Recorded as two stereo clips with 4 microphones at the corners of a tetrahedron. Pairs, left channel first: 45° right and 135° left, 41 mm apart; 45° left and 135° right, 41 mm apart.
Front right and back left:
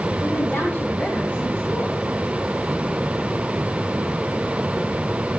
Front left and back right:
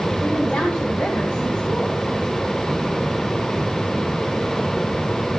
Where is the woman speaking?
Straight ahead, 3 m.